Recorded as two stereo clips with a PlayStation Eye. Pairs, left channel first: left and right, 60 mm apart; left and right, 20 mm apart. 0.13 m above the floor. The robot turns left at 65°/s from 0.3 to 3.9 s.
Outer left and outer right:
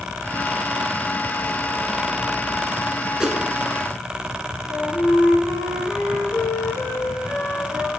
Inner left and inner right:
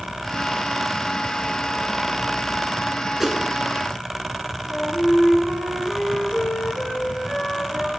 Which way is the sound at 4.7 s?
60° left (ahead or behind).